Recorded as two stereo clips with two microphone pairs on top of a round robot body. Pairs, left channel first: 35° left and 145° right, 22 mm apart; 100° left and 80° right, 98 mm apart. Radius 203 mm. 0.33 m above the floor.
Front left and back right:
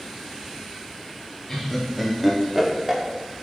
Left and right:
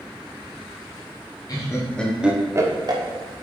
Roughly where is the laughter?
Left.